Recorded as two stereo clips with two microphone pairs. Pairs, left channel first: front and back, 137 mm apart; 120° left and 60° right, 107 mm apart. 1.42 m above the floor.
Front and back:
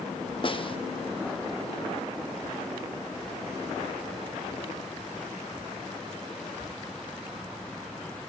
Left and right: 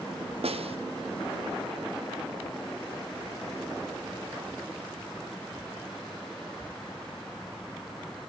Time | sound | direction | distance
0.4 | a snare drum | 50° right | 0.9 m